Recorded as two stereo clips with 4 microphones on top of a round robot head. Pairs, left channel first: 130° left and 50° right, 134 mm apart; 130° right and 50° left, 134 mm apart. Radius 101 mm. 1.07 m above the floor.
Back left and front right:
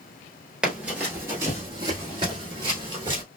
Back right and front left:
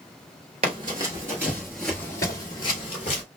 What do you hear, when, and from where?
0.6 s running footsteps: 30° left, 1.2 m; by 3.2 s 100° right, 1.3 m